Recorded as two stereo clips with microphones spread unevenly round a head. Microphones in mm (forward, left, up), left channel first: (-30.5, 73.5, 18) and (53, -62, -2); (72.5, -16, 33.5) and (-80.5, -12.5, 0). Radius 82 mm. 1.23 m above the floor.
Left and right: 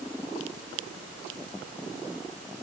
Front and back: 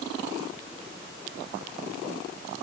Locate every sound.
Only background noise.